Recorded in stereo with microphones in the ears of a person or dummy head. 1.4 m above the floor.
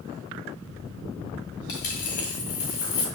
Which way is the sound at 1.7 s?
55° left (ahead or behind).